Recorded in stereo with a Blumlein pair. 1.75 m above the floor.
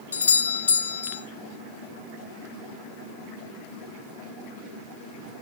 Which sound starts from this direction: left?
A doorbell, at 0.1 s.